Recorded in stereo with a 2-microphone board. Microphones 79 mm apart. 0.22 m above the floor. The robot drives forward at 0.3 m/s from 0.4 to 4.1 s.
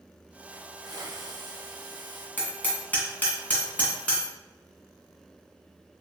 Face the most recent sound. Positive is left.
turn(degrees=20)  # may be behind; listen again after turning